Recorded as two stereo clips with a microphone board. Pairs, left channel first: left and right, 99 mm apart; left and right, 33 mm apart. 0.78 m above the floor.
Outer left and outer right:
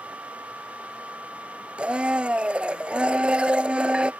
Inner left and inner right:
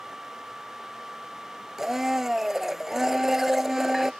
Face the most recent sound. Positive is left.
turn(degrees=-10)  # may be behind; listen again after turning